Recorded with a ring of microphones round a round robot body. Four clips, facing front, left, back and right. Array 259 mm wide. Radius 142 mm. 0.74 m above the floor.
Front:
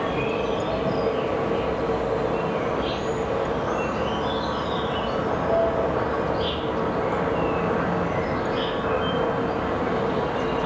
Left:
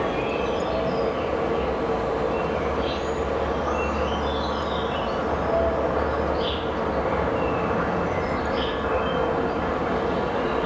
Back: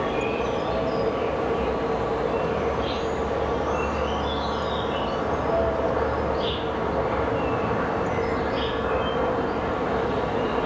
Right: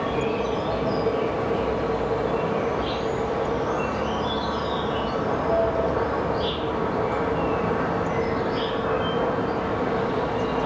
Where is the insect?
55° right, 0.8 m.